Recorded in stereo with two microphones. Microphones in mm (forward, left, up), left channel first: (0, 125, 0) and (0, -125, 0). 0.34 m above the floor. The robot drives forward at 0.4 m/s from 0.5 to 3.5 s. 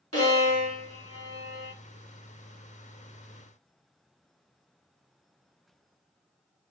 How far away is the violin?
About 1.7 m.